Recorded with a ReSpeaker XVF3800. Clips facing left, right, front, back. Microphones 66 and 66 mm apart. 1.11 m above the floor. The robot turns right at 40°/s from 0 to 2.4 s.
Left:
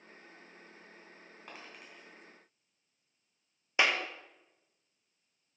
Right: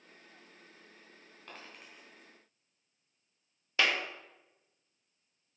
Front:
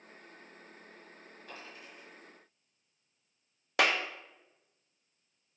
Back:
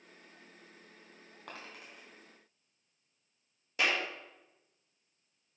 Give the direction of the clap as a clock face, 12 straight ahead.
11 o'clock.